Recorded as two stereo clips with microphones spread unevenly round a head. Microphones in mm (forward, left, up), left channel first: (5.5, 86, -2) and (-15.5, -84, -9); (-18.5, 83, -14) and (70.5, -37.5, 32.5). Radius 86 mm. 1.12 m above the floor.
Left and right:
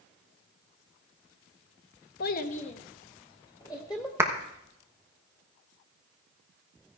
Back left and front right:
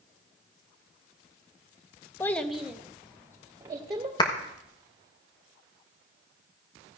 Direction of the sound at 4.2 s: 175° right.